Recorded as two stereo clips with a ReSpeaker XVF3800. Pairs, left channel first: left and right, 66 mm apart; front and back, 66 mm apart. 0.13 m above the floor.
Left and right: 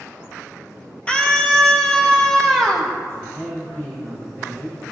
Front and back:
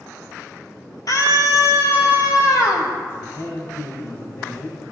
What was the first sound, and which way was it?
A scream, 20° left.